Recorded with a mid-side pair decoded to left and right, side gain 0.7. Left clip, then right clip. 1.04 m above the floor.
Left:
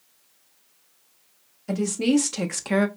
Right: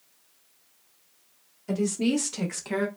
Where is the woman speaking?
10° left, 1.4 m; by 2.9 s 45° left, 0.6 m.